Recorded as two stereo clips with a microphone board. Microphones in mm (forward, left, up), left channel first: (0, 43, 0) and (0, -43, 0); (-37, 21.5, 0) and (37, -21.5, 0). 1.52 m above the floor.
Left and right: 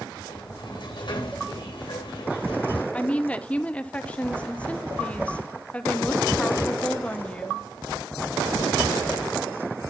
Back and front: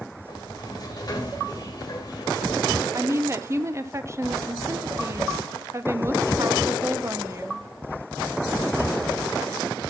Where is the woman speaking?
20° left, 0.6 m.